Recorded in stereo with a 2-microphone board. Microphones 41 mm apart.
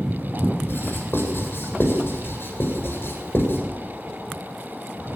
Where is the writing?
60° left (ahead or behind), 7.5 m.